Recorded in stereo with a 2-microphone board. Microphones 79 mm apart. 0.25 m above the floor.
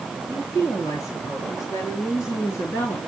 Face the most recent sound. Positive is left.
turn(degrees=40)  # may be behind; listen again after turning